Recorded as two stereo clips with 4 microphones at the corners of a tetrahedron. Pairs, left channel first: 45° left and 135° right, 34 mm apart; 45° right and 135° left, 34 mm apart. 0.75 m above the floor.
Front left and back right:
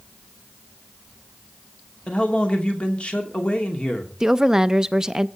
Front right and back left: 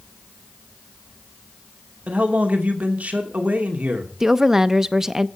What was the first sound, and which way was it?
A man speaking, 95° left.